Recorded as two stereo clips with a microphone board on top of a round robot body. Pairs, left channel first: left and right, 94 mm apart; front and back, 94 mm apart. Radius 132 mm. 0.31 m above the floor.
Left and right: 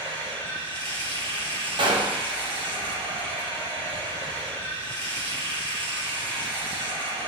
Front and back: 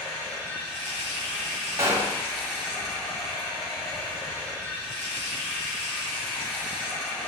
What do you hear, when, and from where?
0.0 s running water: 65° right, 3 m
1.8 s a gunshot: 120° right, 1.6 m